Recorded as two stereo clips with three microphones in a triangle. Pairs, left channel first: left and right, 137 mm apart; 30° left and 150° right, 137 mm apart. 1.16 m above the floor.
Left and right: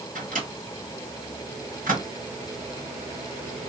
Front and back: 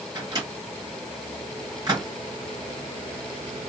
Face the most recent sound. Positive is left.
turn(degrees=-90)